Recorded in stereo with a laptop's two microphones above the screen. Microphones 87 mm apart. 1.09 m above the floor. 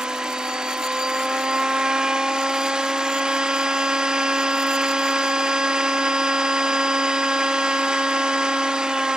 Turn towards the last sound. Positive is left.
turn(degrees=-10)  # may be behind; listen again after turning